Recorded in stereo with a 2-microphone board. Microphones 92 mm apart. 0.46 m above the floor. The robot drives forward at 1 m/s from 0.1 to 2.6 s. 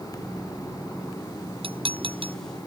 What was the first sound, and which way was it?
Dishes clattering, 85° right.